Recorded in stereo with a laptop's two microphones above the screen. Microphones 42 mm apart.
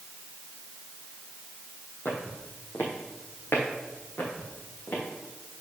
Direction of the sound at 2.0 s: 60° left (ahead or behind).